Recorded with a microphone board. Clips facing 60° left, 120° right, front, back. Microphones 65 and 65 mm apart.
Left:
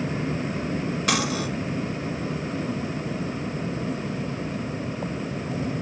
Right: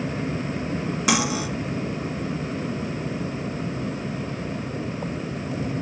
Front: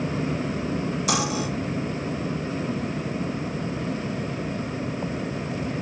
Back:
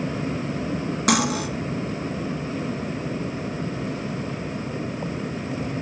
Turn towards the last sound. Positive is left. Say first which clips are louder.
# right 3 dB, back 5 dB
turn(degrees=160)